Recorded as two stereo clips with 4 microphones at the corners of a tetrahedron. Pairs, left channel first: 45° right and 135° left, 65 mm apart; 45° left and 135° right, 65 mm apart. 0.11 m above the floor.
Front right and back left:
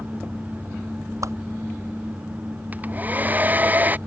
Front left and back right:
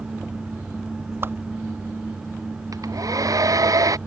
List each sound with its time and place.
1.2 s a whoosh: 175° left
2.7 s a hair dryer: 160° right